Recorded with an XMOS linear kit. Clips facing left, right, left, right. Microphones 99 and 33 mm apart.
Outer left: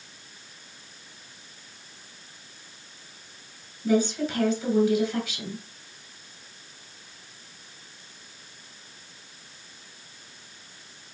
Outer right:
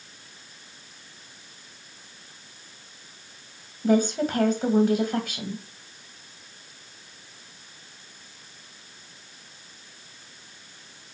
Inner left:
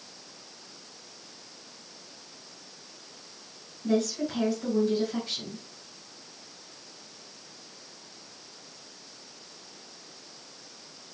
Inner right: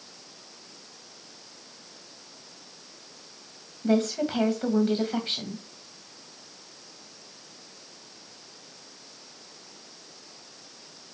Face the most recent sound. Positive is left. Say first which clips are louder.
# outer right 2 dB, inner right 3 dB
turn(degrees=-50)  # may be behind; listen again after turning